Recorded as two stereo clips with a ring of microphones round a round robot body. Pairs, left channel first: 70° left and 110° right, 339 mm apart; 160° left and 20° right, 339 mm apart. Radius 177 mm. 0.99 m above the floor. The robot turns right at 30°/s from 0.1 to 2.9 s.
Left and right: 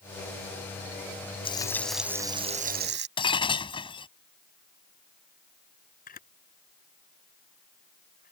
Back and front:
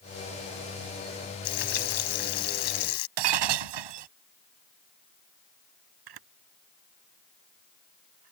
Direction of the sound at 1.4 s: 145° left.